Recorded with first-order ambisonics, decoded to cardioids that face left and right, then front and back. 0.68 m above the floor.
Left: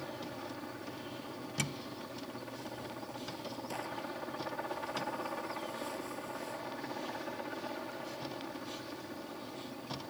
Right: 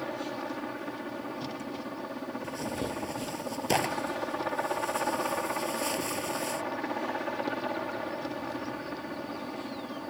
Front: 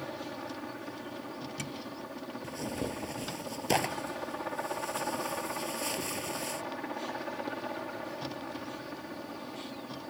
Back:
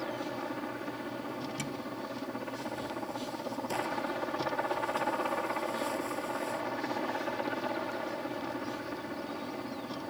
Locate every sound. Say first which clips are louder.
0.0 s a helicopter: right 8 dB, back 3 dB; 110° right
2.4 s tearing paper: right 9 dB, front 1 dB; 55° right